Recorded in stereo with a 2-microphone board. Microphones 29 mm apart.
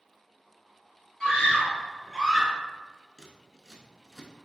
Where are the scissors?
15° left (ahead or behind), 0.8 m.